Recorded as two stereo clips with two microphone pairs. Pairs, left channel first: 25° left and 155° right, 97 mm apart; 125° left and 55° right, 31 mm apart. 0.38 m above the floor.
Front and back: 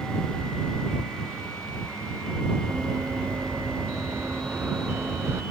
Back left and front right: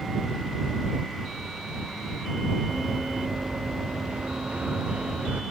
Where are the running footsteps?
95° right.